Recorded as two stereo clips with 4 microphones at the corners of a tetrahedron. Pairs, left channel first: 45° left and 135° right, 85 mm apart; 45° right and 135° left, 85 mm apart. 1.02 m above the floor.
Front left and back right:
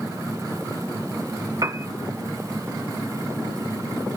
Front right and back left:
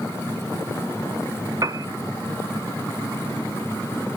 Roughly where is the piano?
Behind.